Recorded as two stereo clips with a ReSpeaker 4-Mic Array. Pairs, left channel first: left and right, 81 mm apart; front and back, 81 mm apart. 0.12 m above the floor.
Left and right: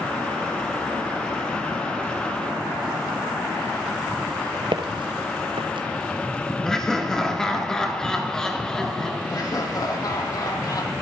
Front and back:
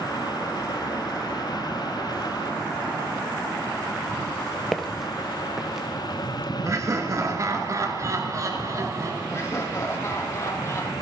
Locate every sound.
4.7 s footsteps: 85° right, 0.8 m; by 5.9 s 95° right, 2.5 m
6.7 s laughter: 170° left, 1.7 m
9.3 s laughter: 55° left, 4 m